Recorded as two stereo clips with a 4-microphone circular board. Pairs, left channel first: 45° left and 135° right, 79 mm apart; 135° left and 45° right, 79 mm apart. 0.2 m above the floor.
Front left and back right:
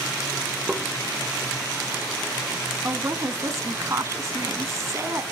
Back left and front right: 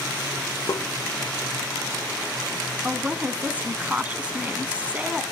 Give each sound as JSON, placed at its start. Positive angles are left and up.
{"t": 0.7, "sound": "tapping", "azimuth_deg": 155, "distance_m": 0.8}
{"t": 2.8, "sound": "a woman speaking", "azimuth_deg": -110, "distance_m": 1.4}